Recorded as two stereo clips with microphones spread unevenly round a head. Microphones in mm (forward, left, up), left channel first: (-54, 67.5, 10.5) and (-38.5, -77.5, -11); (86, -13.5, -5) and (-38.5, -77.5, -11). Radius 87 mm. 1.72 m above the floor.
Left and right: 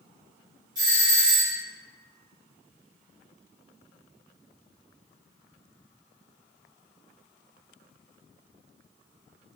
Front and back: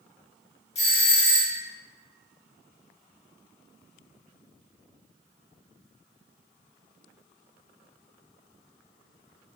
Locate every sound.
0.8 s a doorbell: 15° right, 1.6 m